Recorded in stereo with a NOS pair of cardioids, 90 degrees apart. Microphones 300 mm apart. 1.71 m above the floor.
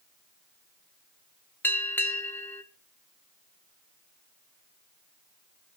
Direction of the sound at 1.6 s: 5° left.